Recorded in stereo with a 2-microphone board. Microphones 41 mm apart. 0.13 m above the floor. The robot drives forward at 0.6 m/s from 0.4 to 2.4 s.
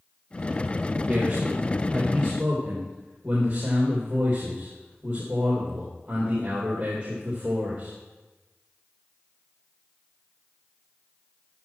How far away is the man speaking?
About 3.5 m.